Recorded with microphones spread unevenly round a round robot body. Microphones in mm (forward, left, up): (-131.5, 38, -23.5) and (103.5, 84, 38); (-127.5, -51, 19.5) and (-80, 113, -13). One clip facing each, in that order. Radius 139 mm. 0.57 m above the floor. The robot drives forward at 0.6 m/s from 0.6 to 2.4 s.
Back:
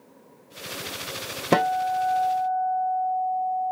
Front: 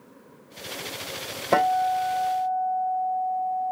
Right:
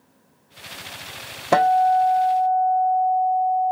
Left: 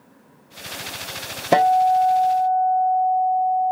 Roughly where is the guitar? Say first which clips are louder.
Back 1 dB, left 1 dB; behind left.